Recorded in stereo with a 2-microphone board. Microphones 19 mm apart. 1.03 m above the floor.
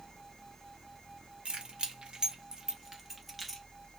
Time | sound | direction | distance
1.4 | keys jangling | 75° right (ahead or behind) | 1.0 m